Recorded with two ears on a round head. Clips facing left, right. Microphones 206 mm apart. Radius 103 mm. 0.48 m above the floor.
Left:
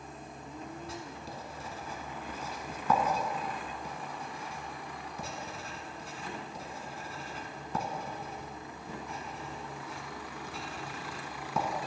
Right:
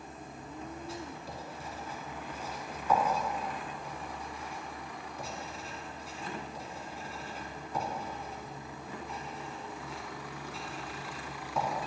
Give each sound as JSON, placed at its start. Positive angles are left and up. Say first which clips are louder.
{"t": 0.9, "sound": "writing", "louder": "right 1 dB", "side_deg": 55, "distance_m": 0.9}